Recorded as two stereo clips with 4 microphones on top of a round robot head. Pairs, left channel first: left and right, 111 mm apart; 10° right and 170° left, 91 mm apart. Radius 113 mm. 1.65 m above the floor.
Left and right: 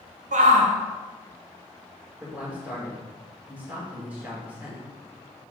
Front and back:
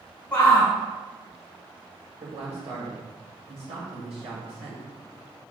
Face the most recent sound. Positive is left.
turn(degrees=-165)